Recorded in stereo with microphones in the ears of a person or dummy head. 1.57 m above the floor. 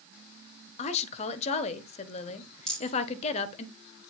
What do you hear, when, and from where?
0.8 s a woman speaking: 40° left (ahead or behind), 1.2 m
2.7 s a rattle: 5° left (ahead or behind), 6 m